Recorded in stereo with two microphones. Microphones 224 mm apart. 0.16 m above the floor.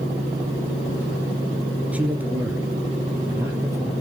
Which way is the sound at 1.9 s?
5° right (ahead or behind).